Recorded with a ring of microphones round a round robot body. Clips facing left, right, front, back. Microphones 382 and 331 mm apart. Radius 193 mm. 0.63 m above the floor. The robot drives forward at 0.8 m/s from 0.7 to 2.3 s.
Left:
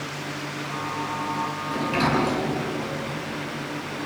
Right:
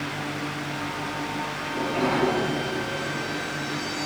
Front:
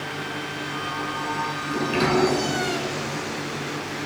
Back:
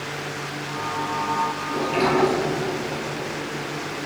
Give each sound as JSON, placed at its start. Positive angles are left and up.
{"t": 1.7, "sound": "a sliding door", "azimuth_deg": 55, "distance_m": 9.5}